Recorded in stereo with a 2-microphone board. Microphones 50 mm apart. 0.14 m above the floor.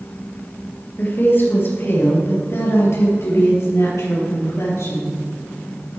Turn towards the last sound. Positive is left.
turn(degrees=70)  # may be behind; listen again after turning